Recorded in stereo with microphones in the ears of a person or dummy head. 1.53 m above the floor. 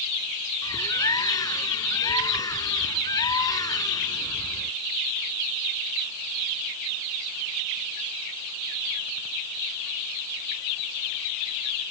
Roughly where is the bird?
Centre.